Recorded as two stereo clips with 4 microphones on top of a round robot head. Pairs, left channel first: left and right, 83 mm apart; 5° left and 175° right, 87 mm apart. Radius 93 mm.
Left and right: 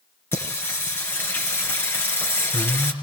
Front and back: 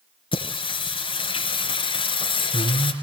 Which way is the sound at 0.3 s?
30° left.